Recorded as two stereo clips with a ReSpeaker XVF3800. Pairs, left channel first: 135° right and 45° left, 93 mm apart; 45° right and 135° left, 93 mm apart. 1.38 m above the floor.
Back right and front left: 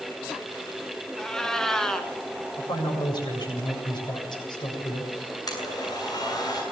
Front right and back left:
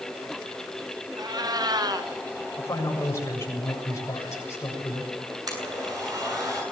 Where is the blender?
Straight behind, 8 m.